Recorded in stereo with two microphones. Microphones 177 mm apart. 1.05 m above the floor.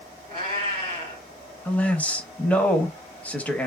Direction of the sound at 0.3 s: 30° left (ahead or behind).